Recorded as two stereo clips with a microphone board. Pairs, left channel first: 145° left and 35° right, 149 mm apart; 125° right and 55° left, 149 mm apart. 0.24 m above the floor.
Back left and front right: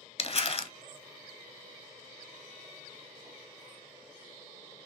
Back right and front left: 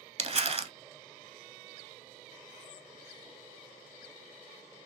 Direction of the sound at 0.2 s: 95° left.